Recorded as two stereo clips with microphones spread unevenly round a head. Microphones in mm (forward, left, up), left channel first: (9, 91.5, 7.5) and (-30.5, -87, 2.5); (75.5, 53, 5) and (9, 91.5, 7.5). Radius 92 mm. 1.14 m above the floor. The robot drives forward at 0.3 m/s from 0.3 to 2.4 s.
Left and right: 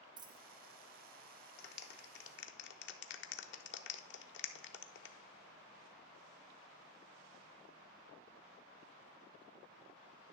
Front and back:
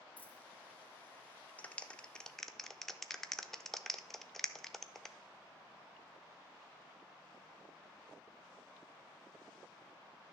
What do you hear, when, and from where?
0.2 s a dropped coin: 75° right, 0.5 m; by 0.4 s 85° right, 0.5 m
1.6 s a clap: 40° left, 0.8 m; by 5.2 s 55° left, 0.7 m